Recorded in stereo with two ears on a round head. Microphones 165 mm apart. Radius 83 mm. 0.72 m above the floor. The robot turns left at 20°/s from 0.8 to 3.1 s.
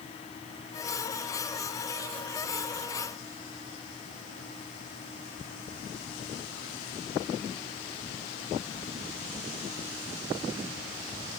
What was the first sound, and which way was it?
Only background noise.